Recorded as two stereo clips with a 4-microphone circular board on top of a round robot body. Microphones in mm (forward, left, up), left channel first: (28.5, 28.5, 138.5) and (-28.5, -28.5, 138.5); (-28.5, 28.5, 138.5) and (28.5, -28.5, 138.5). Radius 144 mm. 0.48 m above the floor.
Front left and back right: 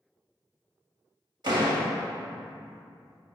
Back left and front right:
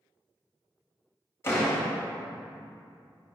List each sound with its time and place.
1.4 s a door slam: 165° right, 2 m